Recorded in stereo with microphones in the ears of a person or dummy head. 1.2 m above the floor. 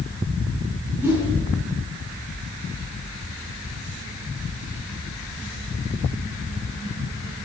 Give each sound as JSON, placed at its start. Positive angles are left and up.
{"t": 1.0, "sound": "a whoosh", "side_deg": -15, "distance_m": 5.0}